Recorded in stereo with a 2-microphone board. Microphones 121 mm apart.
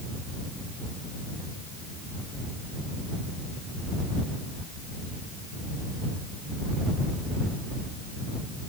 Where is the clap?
No clap in this recording.